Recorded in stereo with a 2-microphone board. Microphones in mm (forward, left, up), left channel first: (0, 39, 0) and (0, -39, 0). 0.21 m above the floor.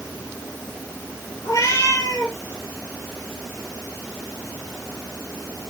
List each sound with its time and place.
1.4 s a cat meowing: 45° left (ahead or behind), 2.5 m